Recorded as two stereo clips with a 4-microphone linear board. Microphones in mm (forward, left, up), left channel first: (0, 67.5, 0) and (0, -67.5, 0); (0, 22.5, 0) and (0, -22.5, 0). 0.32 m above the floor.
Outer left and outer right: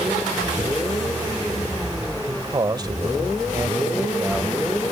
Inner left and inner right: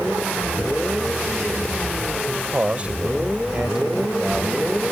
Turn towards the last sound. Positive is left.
turn(degrees=-5)  # may be behind; listen again after turning